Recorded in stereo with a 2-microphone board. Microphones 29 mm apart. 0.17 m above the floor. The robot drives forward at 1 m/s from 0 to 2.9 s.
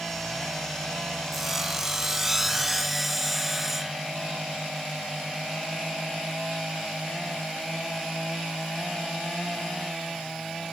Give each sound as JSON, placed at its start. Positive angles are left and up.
{"t": 1.3, "sound": "sawing", "side_deg": -10}